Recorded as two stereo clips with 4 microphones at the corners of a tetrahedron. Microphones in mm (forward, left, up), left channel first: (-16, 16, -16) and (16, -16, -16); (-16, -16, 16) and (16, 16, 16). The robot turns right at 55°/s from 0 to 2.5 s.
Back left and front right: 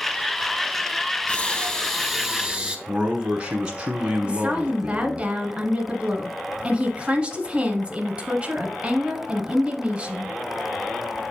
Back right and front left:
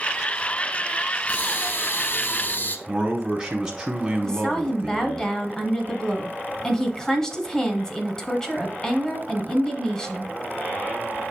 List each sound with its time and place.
1.3 s breathing: straight behind, 1.0 m; by 2.8 s 115° right, 1.0 m
2.9 s a man speaking: 10° right, 1.1 m
4.2 s a woman speaking: 75° right, 1.3 m